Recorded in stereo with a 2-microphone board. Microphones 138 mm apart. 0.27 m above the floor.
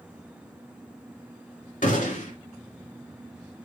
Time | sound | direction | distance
1.8 | a gunshot | 65° left (ahead or behind) | 2.5 m